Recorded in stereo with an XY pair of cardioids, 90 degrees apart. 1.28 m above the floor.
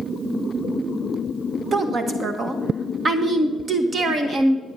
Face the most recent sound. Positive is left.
turn(degrees=-50)